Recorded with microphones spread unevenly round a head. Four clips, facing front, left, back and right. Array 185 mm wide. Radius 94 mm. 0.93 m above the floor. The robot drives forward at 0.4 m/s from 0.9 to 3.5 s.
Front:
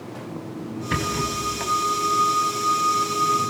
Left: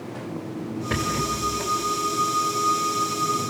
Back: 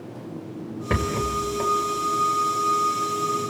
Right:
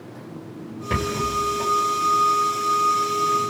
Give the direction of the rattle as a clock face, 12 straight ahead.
6 o'clock.